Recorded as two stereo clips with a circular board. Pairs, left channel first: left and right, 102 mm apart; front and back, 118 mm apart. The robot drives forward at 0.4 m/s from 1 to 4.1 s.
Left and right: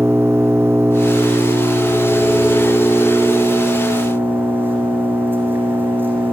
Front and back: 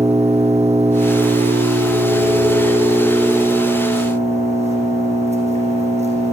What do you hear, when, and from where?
0.0 s an engine running: 155° right, 5.5 m; by 6.3 s 160° right, 6.5 m